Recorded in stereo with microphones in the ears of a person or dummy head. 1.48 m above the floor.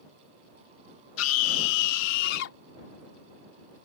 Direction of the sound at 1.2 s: 90° left.